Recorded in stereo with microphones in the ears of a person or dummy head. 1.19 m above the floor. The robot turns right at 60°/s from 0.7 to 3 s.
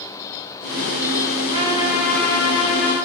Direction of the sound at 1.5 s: 35° right.